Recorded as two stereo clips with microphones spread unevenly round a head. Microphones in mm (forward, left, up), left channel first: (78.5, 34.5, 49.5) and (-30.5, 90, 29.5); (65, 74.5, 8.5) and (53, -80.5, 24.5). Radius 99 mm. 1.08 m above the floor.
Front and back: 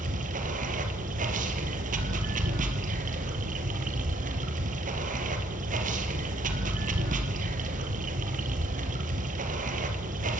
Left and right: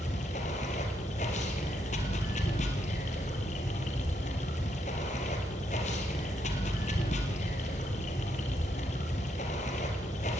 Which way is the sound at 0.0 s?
145° left.